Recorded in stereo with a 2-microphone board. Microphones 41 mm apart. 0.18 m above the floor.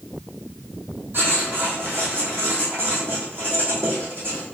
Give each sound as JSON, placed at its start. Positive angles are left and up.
{"t": 1.1, "sound": "writing", "side_deg": -65, "distance_m": 1.7}